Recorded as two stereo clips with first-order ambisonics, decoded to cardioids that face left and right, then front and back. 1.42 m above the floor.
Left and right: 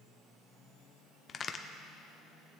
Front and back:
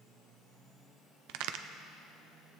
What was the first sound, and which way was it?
A crack, 155° left.